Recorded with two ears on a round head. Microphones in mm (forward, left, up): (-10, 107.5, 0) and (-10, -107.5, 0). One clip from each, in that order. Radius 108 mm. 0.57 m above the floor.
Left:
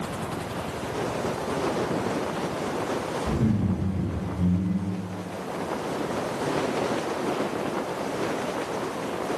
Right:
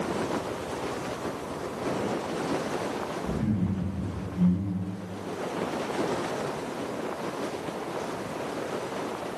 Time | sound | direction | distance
3.2 | laughter | 40° right (ahead or behind) | 1.6 m